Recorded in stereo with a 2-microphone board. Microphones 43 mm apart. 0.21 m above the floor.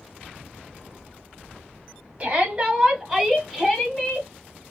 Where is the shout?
25° right (ahead or behind), 1.6 m; by 4.3 s 25° left (ahead or behind), 1.6 m.